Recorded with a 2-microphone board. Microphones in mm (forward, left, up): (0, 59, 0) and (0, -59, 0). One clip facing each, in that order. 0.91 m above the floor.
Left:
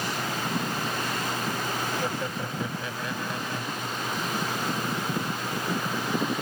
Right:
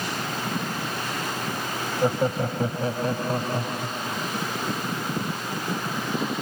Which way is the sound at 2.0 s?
35° right (ahead or behind).